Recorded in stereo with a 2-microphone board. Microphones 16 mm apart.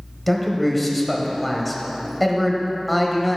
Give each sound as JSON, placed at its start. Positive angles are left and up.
{"t": 0.3, "sound": "a man speaking", "side_deg": 0, "distance_m": 1.3}